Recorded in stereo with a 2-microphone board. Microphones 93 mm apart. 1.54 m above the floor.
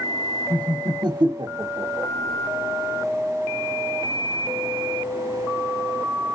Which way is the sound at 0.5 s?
45° right (ahead or behind).